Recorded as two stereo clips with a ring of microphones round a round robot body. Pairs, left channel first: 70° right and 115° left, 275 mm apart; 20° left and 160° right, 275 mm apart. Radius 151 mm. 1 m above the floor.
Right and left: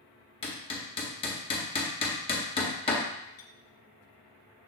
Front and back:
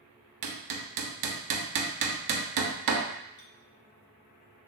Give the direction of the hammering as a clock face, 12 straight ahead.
5 o'clock.